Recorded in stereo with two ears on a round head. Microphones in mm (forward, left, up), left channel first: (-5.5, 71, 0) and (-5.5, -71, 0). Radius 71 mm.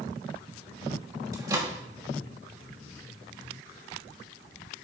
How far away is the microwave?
About 1.3 m.